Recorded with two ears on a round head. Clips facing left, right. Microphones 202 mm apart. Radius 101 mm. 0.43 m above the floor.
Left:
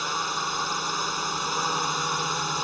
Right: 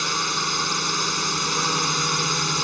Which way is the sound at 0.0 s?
30° right (ahead or behind).